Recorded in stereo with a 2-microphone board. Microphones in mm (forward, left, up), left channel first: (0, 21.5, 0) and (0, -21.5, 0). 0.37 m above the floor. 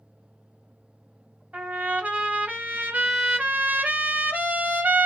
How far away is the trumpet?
About 1.1 m.